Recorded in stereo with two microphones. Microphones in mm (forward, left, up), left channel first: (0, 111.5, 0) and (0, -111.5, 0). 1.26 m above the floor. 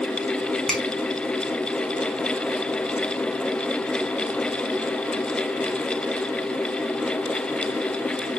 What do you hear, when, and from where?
0.7 s a finger snap: centre (ahead or behind), 1.3 m